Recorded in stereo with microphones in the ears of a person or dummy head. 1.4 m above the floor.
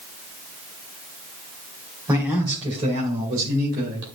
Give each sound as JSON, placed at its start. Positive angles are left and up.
{"t": 2.1, "sound": "a man speaking", "side_deg": -20, "distance_m": 2.5}